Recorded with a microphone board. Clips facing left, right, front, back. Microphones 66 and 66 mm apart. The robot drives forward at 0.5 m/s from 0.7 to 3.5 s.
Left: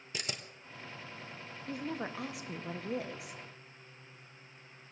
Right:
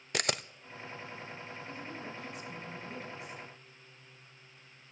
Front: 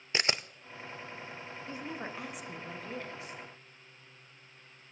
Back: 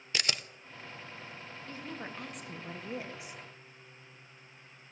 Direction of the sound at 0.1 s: 65° right.